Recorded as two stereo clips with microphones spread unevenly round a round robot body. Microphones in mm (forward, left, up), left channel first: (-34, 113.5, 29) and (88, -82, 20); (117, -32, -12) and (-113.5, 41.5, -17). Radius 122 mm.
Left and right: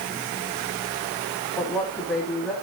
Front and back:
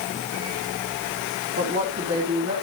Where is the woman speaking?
150° right, 2.5 m.